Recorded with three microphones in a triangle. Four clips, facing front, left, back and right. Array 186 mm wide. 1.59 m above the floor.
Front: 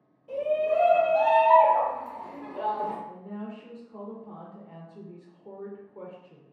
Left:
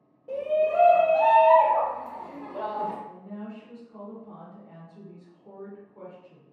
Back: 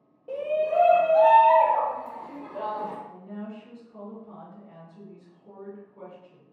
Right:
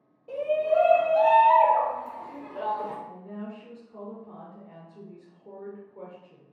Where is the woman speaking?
20° right, 0.8 m.